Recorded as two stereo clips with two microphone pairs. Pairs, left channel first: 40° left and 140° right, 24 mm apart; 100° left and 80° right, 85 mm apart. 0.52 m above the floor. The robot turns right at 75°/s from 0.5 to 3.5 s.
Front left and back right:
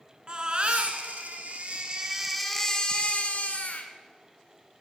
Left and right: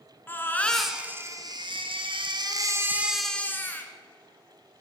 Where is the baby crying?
170° left, 1.8 m; by 3.9 s 35° left, 1.8 m.